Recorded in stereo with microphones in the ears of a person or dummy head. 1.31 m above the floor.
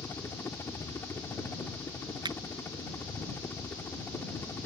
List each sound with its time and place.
0.0 s a helicopter: 15° left (ahead or behind)
2.2 s a finger snap: 20° right (ahead or behind)